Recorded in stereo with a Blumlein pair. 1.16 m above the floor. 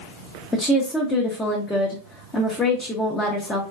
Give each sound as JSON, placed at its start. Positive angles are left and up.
{"t": 0.5, "sound": "a woman speaking", "azimuth_deg": 15, "distance_m": 0.7}